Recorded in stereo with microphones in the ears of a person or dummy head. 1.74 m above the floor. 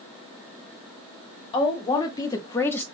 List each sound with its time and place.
1.5 s a woman speaking: 30° left (ahead or behind), 1.3 m; by 2.9 s 10° left (ahead or behind), 0.6 m